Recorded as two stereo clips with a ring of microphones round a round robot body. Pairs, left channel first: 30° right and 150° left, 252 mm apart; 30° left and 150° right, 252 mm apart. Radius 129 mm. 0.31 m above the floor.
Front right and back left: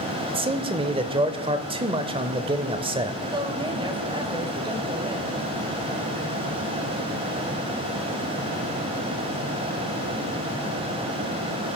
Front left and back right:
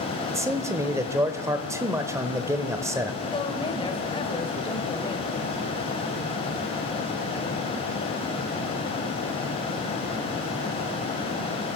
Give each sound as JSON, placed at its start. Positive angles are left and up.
{"t": 0.3, "sound": "a man speaking", "azimuth_deg": 155, "distance_m": 0.9}
{"t": 3.2, "sound": "a woman speaking", "azimuth_deg": 90, "distance_m": 1.7}